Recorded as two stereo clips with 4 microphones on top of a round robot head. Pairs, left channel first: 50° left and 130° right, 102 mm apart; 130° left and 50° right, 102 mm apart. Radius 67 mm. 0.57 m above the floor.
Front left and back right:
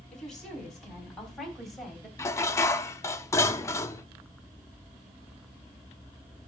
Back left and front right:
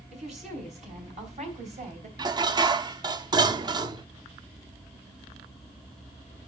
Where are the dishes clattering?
10° right, 0.7 m.